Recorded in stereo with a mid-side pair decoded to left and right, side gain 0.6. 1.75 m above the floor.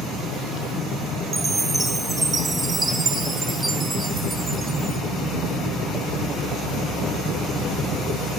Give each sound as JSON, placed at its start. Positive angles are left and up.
{"t": 1.3, "sound": "a chime", "azimuth_deg": -10, "distance_m": 1.2}